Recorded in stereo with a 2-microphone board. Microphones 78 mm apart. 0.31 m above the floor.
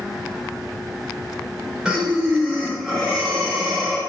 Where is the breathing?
10° right (ahead or behind), 1.0 m.